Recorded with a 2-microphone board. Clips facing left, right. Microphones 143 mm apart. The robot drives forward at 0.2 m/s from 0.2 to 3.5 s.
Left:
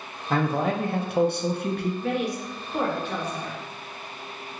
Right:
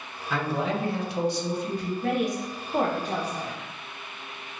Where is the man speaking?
45° left (ahead or behind), 0.6 m; by 1.9 s 70° left (ahead or behind), 0.5 m.